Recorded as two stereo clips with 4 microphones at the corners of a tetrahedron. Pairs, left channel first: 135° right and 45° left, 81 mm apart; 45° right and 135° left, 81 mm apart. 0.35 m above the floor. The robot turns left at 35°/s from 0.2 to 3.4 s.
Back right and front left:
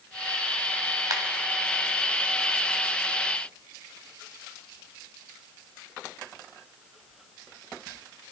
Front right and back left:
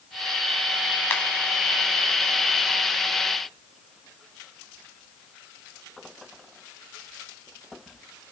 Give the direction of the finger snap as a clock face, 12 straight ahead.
12 o'clock.